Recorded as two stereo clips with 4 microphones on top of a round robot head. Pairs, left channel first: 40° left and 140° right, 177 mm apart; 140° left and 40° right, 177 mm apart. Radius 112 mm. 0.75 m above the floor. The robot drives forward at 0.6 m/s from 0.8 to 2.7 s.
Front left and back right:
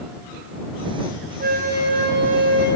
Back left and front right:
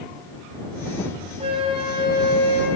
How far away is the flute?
About 3.5 m.